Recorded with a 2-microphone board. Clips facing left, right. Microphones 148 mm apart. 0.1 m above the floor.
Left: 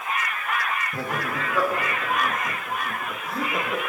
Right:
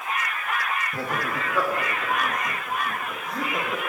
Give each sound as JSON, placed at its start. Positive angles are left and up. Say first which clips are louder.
{"t": 0.9, "sound": "laughter", "louder": "even", "side_deg": 0, "distance_m": 6.0}